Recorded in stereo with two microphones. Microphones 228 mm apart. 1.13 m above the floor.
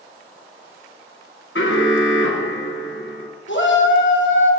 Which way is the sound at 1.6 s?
60° left (ahead or behind).